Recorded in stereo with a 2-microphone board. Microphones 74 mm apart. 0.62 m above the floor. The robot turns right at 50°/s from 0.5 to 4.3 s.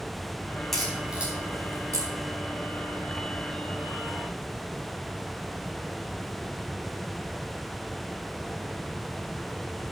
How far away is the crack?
About 4.5 m.